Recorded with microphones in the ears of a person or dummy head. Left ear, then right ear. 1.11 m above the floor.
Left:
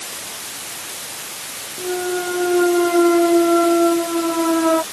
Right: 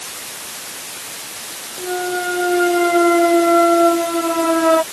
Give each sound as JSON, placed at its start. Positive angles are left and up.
{"t": 1.8, "sound": "a clunk", "side_deg": -35}